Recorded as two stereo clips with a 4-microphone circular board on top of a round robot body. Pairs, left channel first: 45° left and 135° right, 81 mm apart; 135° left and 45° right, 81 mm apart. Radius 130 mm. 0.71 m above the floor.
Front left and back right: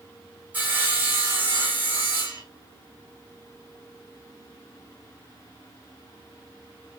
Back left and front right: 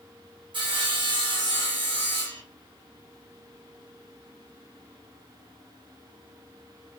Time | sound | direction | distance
0.5 | sawing | 65° right | 1.5 m